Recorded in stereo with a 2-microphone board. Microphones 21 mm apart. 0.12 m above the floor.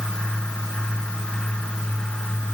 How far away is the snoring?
I don't hear snoring.